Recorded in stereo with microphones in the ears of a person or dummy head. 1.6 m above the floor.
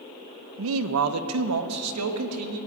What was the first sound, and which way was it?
A man speaking, 65° right (ahead or behind).